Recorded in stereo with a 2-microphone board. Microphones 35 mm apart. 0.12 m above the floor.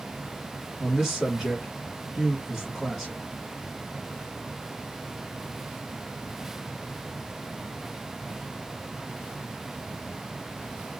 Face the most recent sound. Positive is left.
turn(degrees=-5)  # may be behind; listen again after turning